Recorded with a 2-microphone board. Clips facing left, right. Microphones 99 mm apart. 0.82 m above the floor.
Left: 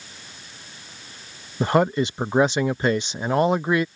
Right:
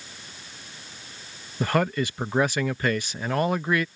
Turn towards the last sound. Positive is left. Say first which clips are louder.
# left 4 dB
turn(degrees=25)  # may be behind; listen again after turning